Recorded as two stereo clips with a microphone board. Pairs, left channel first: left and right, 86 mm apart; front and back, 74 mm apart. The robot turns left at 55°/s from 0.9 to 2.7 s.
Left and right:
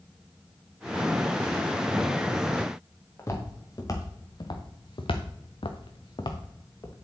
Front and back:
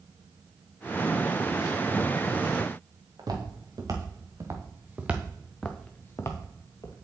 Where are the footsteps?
150° left, 3 m; by 6.9 s 35° left, 2 m.